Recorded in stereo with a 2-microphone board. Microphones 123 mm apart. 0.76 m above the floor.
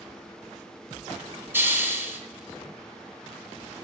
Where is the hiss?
15° right (ahead or behind), 1.8 m.